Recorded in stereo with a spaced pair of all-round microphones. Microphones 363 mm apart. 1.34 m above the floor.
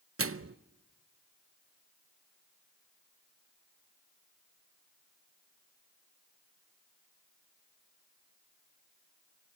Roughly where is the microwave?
Right.